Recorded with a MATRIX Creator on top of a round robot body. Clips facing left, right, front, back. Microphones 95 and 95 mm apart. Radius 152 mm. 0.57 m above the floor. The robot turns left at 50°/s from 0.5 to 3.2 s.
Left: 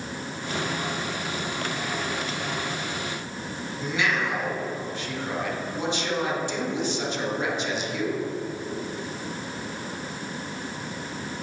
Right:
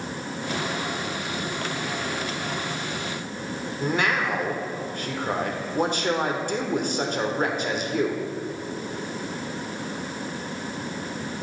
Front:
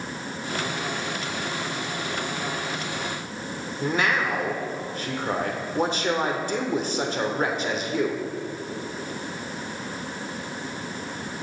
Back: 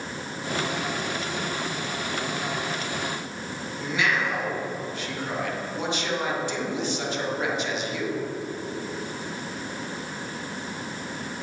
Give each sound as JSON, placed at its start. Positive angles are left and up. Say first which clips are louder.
{"t": 3.8, "sound": "a man speaking", "louder": "right 2 dB, front 2 dB", "azimuth_deg": -50, "distance_m": 2.0}